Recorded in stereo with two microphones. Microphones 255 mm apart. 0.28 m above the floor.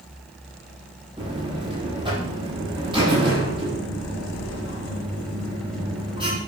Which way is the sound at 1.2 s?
20° right (ahead or behind).